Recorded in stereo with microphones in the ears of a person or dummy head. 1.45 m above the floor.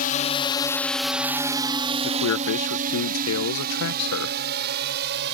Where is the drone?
35° left (ahead or behind); by 5.3 s 60° right (ahead or behind).